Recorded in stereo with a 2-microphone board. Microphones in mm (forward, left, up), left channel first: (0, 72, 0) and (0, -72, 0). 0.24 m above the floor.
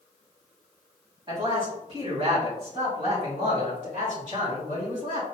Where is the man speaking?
35° right (ahead or behind), 1.8 m; by 5.2 s 65° right (ahead or behind), 3.5 m.